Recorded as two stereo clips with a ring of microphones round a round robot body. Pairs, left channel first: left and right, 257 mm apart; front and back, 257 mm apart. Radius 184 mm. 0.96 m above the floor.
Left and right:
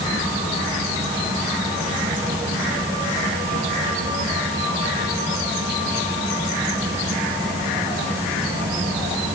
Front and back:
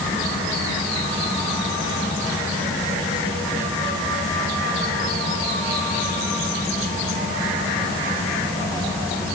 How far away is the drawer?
No drawer in this recording.